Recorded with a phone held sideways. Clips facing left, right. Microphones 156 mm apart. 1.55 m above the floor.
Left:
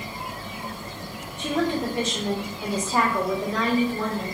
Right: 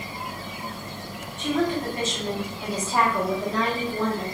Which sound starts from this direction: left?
A woman speaking, at 1.4 s.